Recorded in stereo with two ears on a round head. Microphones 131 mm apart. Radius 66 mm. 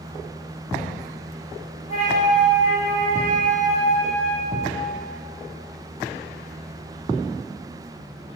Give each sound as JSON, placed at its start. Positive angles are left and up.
{"t": 1.9, "sound": "a flute", "side_deg": 50, "distance_m": 4.0}